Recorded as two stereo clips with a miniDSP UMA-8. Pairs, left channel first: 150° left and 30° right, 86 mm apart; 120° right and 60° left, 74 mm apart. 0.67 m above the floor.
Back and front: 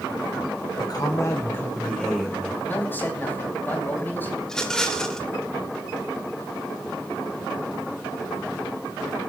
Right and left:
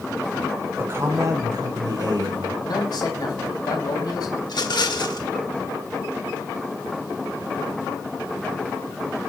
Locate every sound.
0.8 s a man speaking: 120° left, 1.8 m; by 2.5 s 55° left, 2 m
2.6 s a man speaking: 140° right, 4 m
4.4 s a rattle: 125° right, 1.7 m